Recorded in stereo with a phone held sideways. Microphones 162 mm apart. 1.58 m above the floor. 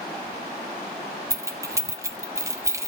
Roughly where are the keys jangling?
Centre.